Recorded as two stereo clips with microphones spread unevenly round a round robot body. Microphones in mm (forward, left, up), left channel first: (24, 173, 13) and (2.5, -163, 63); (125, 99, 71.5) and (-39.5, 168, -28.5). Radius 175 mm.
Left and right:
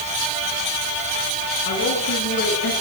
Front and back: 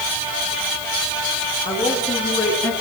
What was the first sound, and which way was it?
A woman speaking, 30° left.